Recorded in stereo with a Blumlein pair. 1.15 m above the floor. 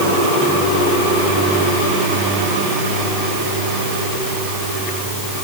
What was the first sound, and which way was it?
Only background noise.